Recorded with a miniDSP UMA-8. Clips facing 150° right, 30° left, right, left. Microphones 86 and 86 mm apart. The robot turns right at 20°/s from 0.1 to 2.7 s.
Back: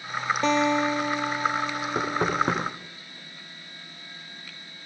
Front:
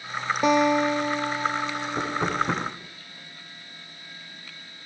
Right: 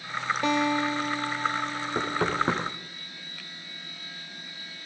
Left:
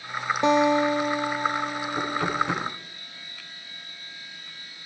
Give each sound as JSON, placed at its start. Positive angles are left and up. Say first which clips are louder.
{"t": 0.4, "sound": "a guitar", "louder": "front 3 dB, left 6 dB", "azimuth_deg": 90, "distance_m": 0.8}
{"t": 1.9, "sound": "knocking", "louder": "back 2 dB, even", "azimuth_deg": -135, "distance_m": 5.5}